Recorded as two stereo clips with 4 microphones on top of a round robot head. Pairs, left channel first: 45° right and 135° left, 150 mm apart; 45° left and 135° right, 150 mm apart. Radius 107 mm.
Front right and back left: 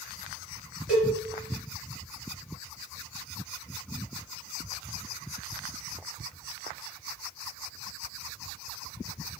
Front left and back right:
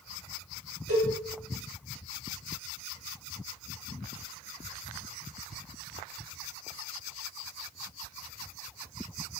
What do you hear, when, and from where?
0.9 s a cowbell: 50° left, 1.7 m